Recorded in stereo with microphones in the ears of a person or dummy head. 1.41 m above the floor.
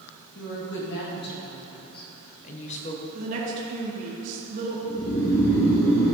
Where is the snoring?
65° left (ahead or behind), 2.5 m.